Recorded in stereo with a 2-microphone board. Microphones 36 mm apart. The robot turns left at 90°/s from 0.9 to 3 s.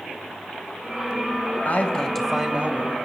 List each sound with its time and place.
1.6 s a man speaking: 55° left, 3 m; by 2.9 s 60° right, 3 m